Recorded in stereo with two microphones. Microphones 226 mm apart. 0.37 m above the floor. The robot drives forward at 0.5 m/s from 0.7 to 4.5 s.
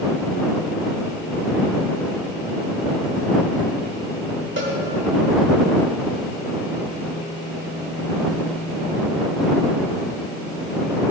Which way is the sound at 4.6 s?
55° right (ahead or behind).